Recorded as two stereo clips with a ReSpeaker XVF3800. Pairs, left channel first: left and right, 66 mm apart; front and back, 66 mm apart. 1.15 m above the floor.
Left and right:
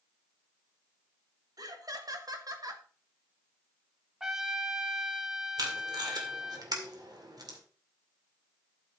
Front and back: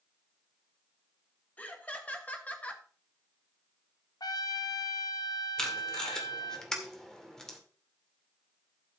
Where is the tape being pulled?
80° right, 2.0 m.